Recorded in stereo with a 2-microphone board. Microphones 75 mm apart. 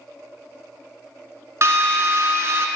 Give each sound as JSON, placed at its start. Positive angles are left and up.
{"t": 1.6, "sound": "a drill", "side_deg": -45, "distance_m": 0.8}